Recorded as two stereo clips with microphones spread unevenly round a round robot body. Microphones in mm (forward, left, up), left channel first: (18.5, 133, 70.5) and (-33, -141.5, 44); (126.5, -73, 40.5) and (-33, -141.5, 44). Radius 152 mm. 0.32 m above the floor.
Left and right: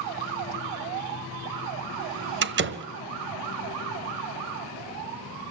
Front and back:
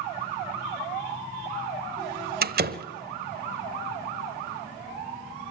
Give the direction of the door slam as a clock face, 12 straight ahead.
5 o'clock.